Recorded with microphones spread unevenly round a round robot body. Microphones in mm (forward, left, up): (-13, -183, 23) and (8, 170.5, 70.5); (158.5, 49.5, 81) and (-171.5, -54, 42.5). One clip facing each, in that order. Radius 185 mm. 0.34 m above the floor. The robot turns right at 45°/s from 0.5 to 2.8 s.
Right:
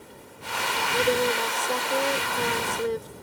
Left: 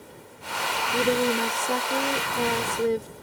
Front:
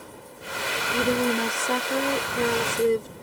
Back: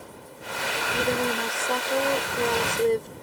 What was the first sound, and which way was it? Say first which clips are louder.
A woman speaking: left 1 dB, front 3 dB; 10° left.